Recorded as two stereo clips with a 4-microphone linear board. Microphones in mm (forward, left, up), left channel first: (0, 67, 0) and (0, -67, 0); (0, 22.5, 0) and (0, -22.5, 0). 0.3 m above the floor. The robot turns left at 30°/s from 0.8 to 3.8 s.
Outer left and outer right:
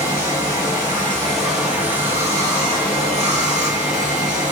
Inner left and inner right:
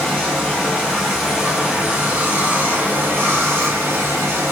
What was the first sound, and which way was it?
Running water, 20° left.